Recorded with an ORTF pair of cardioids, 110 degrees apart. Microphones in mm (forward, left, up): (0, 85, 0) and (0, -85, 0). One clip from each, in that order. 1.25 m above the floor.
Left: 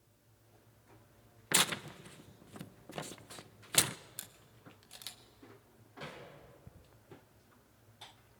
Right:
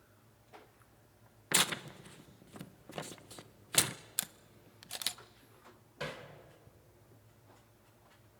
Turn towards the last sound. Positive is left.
turn(degrees=-50)